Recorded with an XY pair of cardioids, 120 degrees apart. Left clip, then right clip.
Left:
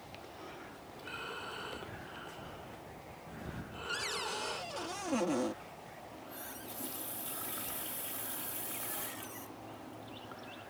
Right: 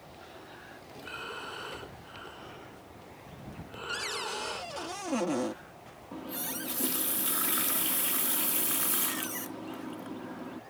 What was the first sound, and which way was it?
Breathing, 20° right.